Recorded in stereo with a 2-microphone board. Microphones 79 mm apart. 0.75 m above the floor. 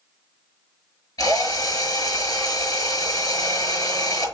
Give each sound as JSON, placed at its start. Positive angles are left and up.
{"t": 1.2, "sound": "a drill", "side_deg": 50, "distance_m": 5.5}